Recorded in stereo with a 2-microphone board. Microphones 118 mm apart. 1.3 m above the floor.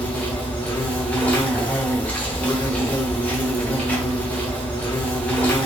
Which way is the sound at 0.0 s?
10° left (ahead or behind).